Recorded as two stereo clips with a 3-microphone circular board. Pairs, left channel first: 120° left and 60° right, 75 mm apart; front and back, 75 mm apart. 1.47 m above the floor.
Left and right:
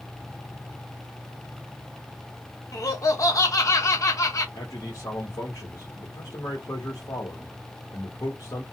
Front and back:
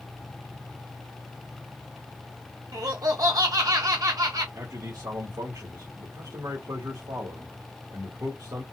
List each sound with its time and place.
2.7 s laughter: 155° left, 0.7 m
4.5 s a man speaking: 155° left, 1.4 m